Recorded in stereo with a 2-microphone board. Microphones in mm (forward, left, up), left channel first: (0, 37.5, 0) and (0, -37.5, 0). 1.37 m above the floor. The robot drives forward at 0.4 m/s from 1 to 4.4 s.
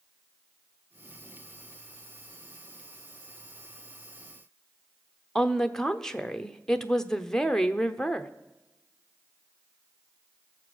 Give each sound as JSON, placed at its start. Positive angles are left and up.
{"t": 5.3, "sound": "a woman speaking", "side_deg": 5, "distance_m": 0.6}